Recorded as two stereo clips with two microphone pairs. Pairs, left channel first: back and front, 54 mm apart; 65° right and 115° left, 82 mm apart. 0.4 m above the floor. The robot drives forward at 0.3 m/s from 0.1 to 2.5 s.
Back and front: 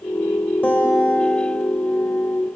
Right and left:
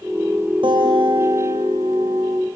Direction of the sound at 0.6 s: 120° left.